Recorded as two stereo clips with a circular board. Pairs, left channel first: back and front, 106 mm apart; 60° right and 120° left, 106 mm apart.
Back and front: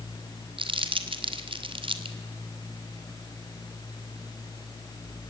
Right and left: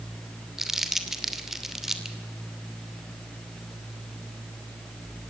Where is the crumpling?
35° left, 2 m.